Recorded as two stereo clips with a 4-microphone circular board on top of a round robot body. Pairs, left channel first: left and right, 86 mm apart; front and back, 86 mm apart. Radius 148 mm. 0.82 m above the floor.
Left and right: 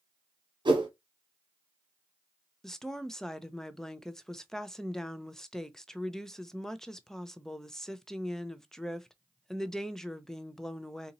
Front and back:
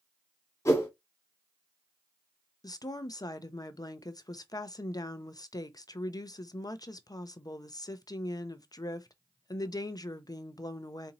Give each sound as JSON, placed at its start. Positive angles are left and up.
{"t": 0.7, "sound": "a whoosh", "azimuth_deg": -55, "distance_m": 1.4}
{"t": 2.6, "sound": "a woman speaking", "azimuth_deg": 10, "distance_m": 0.7}